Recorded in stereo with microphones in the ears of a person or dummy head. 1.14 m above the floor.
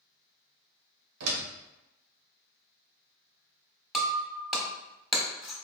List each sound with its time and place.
1.2 s a door slam: 90° right, 0.7 m
3.9 s breaking glass: 5° right (ahead or behind), 0.8 m